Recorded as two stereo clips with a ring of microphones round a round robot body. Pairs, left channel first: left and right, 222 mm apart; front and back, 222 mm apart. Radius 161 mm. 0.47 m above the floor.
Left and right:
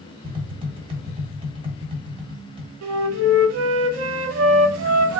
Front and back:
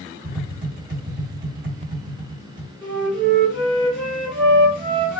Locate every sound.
0.2 s tapping: 150° right, 1.1 m
2.8 s a flute: 90° right, 0.6 m